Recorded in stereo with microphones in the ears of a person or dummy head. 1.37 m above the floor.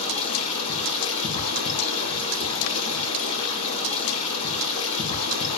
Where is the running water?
30° left (ahead or behind), 4.5 m.